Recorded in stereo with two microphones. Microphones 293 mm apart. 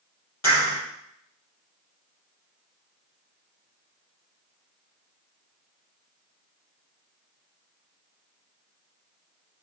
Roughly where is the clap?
Left.